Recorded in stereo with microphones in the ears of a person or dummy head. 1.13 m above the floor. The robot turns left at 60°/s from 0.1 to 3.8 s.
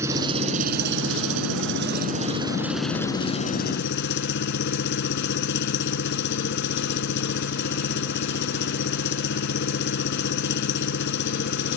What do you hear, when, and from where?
0.0 s an engine running: 20° right; by 11.8 s 115° left